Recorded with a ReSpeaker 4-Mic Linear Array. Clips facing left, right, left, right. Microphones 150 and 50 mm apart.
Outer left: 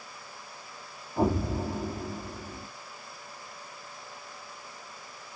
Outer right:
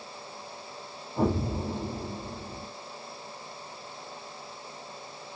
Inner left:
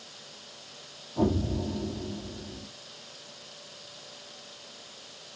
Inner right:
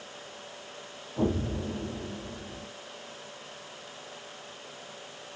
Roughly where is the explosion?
Centre.